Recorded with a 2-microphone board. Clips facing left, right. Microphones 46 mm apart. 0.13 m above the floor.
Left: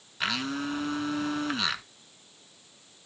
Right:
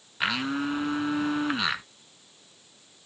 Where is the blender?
15° right (ahead or behind), 0.6 m.